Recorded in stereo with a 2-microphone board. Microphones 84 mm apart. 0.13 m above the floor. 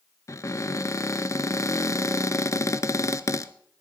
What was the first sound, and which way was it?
A cupboard door, 35° left (ahead or behind).